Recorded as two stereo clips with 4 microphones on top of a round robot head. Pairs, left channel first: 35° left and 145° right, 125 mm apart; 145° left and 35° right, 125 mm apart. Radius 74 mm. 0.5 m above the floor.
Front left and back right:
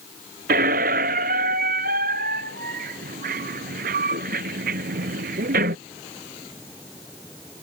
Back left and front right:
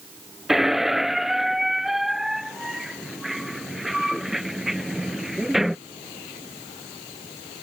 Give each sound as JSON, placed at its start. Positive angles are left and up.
{"t": 0.5, "sound": "a squeak", "azimuth_deg": -125}